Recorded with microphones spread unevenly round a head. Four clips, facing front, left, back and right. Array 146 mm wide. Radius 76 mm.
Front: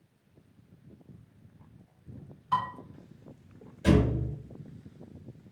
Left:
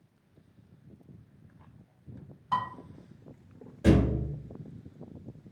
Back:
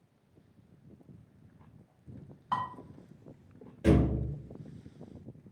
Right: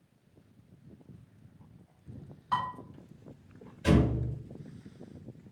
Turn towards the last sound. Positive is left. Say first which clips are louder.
# left 2 dB, front 1 dB
turn(degrees=125)